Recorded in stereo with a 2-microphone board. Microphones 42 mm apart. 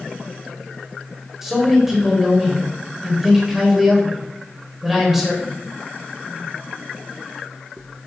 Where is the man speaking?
10° right (ahead or behind), 3.5 m.